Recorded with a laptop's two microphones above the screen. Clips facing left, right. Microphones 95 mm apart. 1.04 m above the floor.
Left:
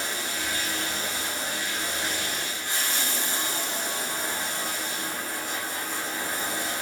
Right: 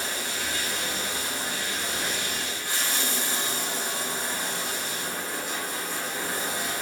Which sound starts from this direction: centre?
Running water, at 0.0 s.